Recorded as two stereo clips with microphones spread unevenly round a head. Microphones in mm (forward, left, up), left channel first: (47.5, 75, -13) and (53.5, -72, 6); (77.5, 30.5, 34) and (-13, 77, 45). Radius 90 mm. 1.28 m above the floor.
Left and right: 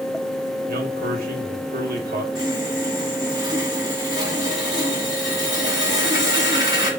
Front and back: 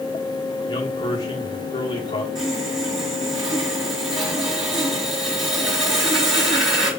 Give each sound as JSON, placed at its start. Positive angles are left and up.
{"t": 0.7, "sound": "a man speaking", "azimuth_deg": -70, "distance_m": 2.0}
{"t": 2.4, "sound": "sawing", "azimuth_deg": -150, "distance_m": 2.0}